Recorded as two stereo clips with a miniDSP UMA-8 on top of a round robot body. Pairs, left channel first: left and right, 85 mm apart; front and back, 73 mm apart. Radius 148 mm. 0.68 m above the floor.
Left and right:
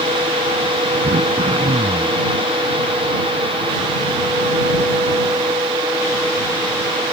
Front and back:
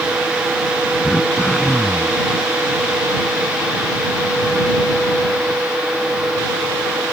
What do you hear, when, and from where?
1.0 s throat clearing: 80° right